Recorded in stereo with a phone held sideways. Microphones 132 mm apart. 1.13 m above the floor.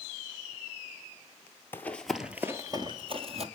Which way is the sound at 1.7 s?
15° left (ahead or behind).